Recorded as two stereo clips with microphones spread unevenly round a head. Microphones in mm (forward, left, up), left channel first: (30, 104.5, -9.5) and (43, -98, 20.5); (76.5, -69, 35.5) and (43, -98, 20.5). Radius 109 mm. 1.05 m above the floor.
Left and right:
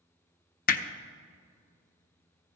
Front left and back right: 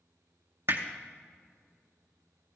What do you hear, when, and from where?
0.7 s hammering: 145° left, 0.6 m